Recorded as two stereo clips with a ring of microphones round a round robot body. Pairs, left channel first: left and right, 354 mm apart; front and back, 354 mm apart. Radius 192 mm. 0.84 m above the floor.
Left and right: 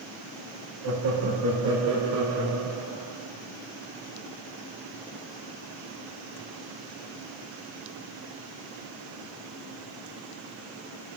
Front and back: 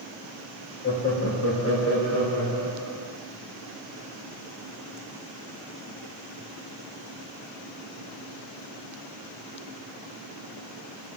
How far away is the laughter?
About 1.8 m.